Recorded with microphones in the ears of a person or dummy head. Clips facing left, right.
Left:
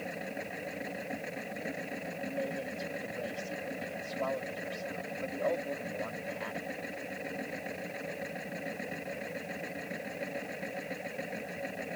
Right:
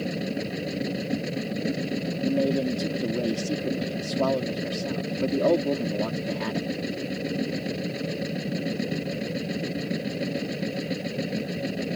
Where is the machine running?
55° right (ahead or behind).